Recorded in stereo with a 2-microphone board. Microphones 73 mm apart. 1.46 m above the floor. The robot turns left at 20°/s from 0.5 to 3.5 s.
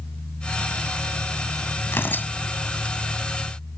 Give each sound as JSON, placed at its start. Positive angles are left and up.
{"t": 1.9, "sound": "tearing paper", "side_deg": 35}